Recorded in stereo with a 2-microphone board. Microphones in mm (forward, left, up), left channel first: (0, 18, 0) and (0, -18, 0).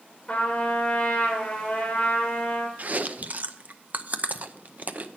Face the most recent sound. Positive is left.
turn(degrees=-45)  # may be behind; listen again after turning